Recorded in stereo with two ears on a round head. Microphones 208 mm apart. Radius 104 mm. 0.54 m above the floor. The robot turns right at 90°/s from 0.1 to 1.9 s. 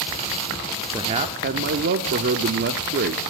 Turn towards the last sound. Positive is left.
turn(degrees=-75)